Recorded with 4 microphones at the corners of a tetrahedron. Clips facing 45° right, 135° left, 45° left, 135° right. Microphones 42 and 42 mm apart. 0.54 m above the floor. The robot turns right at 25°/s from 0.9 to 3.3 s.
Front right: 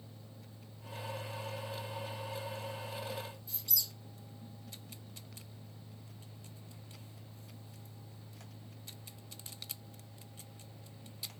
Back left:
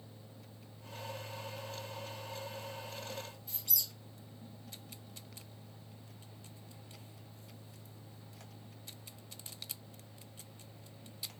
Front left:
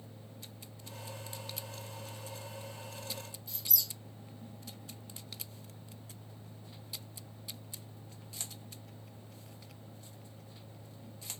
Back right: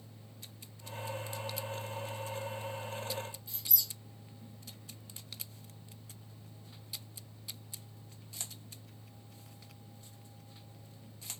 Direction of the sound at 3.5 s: 150° left.